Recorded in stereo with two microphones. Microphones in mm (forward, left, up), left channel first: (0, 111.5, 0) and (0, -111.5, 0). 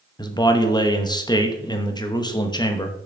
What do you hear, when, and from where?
0.2 s a man speaking: 20° left (ahead or behind), 0.9 m